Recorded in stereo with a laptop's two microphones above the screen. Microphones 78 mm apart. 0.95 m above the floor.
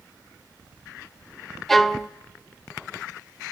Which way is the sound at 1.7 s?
5° left (ahead or behind).